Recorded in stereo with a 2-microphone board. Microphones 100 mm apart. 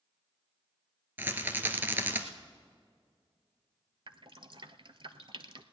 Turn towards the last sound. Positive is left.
turn(degrees=-60)  # may be behind; listen again after turning